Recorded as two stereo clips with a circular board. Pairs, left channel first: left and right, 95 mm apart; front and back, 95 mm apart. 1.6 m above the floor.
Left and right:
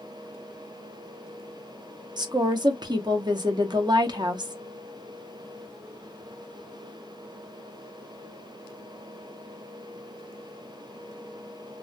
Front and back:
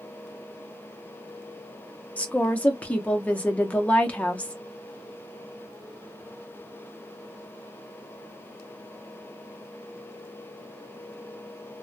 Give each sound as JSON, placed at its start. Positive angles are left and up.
{"t": 2.2, "sound": "a woman speaking", "azimuth_deg": -75, "distance_m": 0.7}